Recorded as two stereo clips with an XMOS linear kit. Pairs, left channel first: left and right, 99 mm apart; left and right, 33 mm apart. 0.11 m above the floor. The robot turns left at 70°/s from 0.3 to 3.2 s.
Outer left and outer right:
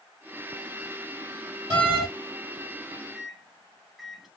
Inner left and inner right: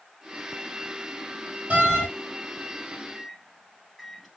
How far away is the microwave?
About 1.1 m.